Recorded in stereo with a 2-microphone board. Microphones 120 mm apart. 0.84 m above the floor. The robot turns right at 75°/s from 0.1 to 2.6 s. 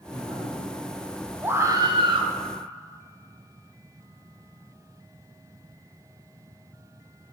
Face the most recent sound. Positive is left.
turn(degrees=-65)